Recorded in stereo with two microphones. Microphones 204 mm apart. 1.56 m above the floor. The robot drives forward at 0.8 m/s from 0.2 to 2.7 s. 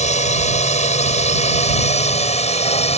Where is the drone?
35° left (ahead or behind); by 3.0 s 30° left (ahead or behind).